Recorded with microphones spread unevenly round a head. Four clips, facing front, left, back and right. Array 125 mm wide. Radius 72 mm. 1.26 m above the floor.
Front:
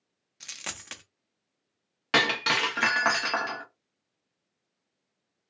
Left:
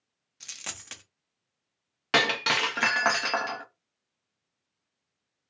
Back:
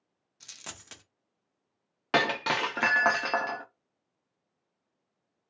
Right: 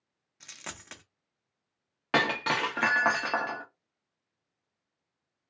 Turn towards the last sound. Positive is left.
turn(degrees=-135)